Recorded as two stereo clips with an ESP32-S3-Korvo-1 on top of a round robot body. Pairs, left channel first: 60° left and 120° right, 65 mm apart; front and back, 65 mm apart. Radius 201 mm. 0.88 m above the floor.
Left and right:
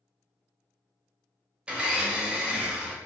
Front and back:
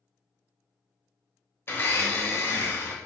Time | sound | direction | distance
1.7 | a blender | 50° right | 1.1 m